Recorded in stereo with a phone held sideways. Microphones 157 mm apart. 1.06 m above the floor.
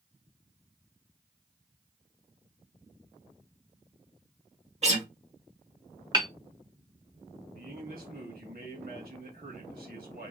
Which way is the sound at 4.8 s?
45° right (ahead or behind).